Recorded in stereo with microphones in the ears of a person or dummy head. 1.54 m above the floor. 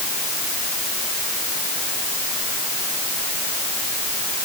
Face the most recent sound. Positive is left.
No sound to turn to.